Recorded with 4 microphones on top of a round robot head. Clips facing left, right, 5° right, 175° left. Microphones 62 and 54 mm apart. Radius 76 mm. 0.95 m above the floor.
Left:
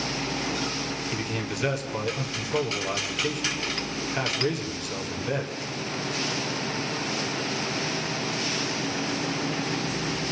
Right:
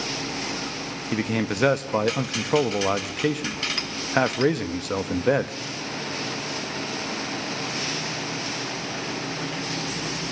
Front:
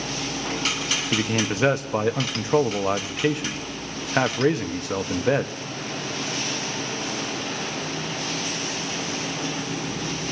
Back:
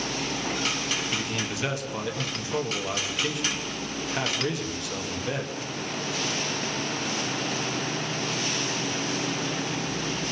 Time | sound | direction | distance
1.1 | a man speaking | 55° right | 1.2 m